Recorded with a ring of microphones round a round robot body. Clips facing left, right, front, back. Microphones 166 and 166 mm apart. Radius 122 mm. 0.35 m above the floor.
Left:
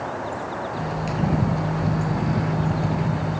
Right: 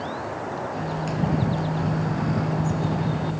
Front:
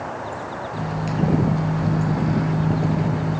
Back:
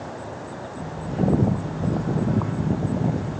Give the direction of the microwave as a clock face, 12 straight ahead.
12 o'clock.